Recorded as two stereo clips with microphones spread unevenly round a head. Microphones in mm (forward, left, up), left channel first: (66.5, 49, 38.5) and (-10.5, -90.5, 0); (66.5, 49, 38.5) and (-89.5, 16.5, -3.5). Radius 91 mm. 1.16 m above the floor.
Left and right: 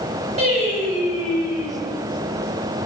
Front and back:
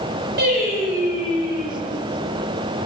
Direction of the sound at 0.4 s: 165° right.